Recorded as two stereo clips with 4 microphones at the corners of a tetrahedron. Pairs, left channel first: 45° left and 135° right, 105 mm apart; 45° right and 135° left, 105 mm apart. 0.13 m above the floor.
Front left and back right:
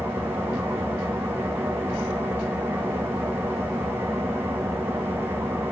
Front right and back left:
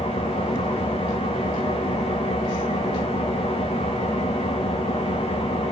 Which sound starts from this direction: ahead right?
An engine running, at 0.0 s.